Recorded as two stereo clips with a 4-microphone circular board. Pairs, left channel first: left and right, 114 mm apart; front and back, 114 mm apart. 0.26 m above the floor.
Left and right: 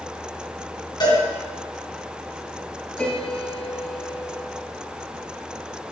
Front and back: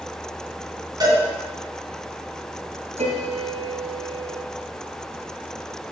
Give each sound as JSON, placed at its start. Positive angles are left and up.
{"t": 1.0, "sound": "a cowbell", "azimuth_deg": 135, "distance_m": 3.0}
{"t": 3.0, "sound": "a piano", "azimuth_deg": 170, "distance_m": 1.7}